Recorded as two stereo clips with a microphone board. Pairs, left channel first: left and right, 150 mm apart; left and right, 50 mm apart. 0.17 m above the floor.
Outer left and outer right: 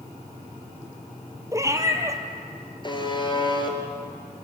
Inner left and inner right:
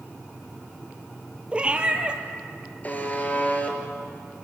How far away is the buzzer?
About 3 m.